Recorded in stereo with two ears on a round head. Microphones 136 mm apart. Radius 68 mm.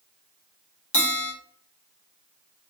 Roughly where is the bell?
Left.